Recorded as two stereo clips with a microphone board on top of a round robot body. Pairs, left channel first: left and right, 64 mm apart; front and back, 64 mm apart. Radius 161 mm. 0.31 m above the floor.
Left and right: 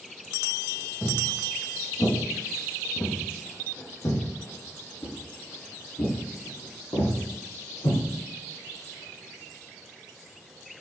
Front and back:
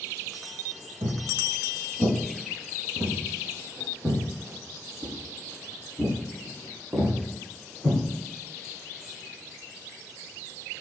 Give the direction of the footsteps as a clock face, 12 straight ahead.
7 o'clock.